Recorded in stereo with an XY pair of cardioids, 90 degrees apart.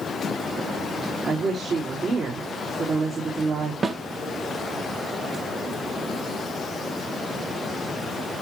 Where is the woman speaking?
60° right, 4.5 m.